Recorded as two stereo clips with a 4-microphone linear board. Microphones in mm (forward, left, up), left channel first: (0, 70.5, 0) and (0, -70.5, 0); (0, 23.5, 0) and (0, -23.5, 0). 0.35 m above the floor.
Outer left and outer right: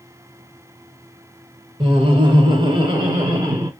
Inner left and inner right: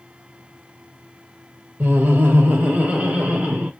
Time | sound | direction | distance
1.8 | laughter | 40° right (ahead or behind) | 1.0 m